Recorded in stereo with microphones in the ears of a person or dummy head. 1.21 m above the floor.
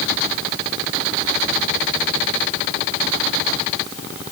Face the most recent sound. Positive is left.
No sound to turn to.